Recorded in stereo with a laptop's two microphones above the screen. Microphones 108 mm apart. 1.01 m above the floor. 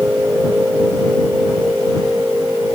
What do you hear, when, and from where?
0.0 s a machine running: 15° right (ahead or behind)